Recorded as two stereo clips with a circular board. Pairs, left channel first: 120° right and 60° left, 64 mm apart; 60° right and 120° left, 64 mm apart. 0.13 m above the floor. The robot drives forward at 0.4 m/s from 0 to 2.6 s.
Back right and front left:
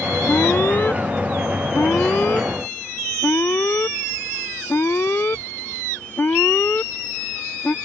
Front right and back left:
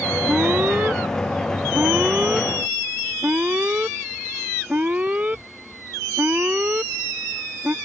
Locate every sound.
0.3 s an alarm: 175° right